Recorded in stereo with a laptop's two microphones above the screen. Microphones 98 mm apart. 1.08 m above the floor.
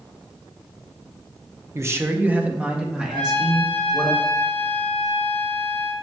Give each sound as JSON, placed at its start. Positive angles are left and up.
{"t": 1.8, "sound": "a man speaking", "side_deg": -30, "distance_m": 0.9}
{"t": 3.1, "sound": "a trumpet", "side_deg": 75, "distance_m": 2.0}